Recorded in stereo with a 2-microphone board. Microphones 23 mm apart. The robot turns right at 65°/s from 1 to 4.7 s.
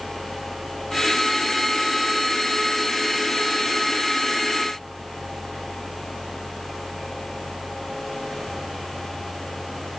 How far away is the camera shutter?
No camera shutter in this recording.